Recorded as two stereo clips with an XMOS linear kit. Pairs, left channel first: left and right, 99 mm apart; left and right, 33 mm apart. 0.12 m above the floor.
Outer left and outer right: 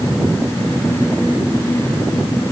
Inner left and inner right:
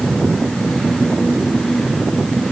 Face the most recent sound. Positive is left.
No sound to turn to.